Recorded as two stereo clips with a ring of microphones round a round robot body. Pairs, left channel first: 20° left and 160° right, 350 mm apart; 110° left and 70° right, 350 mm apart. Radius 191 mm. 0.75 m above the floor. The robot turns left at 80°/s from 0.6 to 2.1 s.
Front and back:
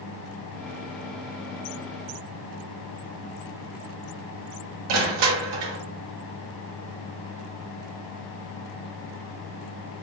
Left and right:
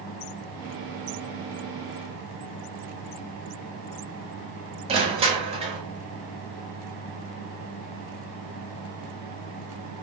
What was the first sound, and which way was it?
Crushing, 140° right.